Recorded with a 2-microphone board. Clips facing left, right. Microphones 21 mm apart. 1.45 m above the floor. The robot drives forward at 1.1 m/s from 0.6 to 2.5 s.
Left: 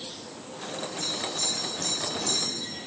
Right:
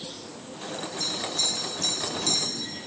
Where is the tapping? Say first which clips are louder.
Right 3 dB; 35° right (ahead or behind), 5 m; by 2.4 s 50° right (ahead or behind), 4 m.